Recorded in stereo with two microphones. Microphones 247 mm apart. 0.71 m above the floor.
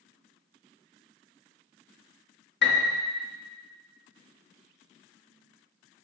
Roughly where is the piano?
Left.